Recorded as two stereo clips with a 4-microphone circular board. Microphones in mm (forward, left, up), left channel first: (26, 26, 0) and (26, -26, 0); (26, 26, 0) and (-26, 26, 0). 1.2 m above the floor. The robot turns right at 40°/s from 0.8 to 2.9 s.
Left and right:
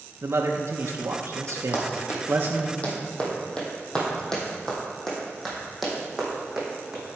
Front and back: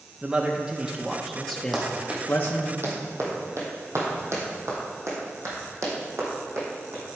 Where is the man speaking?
105° right, 0.8 m; by 2.7 s 25° right, 0.8 m.